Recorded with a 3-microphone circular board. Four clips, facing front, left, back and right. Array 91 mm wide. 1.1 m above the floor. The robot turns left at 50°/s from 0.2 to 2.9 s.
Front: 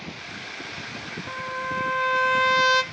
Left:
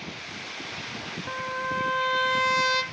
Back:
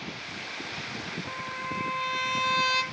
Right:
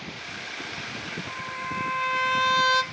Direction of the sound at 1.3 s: 65° left.